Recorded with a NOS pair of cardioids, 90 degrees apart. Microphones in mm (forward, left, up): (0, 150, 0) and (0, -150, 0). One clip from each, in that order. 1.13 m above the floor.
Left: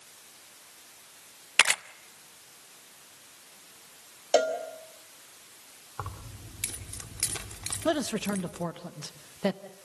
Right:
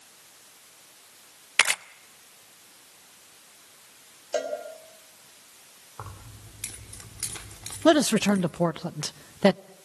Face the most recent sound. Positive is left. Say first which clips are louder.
# right 9 dB
turn(degrees=-45)